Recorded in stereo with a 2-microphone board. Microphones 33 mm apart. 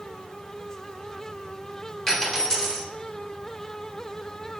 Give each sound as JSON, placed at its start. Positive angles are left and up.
{"t": 2.1, "sound": "a dropped coin", "side_deg": 5, "distance_m": 1.5}